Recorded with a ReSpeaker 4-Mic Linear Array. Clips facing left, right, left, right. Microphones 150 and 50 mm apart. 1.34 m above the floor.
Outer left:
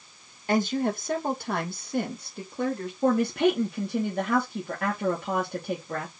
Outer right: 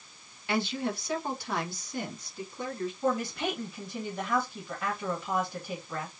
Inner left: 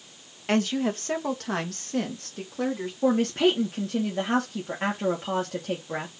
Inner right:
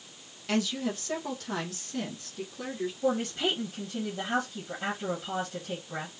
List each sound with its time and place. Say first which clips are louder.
0.5 s a woman speaking: outer left 6 dB, inner left 5 dB; 45° left (ahead or behind), 1.6 m; by 2.9 s 65° left (ahead or behind), 3.5 m
3.0 s a woman speaking: outer left 9 dB, inner left 7 dB; 65° left (ahead or behind), 2.5 m